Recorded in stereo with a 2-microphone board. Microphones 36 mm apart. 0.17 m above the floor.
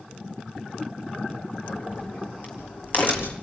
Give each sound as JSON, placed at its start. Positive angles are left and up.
{"t": 1.6, "sound": "a crack", "side_deg": 50, "distance_m": 4.5}